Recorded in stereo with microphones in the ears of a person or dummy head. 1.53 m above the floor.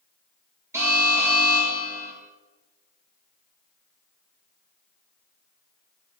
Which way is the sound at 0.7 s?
15° right (ahead or behind).